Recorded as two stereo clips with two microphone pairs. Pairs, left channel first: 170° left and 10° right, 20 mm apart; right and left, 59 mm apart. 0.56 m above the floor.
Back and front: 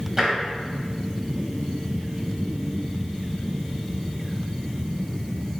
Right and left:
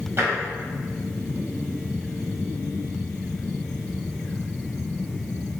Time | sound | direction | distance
0.2 | tapping | 55° left | 1.3 m